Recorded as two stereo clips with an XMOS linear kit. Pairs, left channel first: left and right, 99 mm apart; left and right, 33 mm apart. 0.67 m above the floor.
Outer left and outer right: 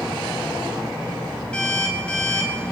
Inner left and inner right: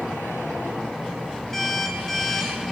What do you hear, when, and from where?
1.5 s an alarm clock: 10° left (ahead or behind), 4 m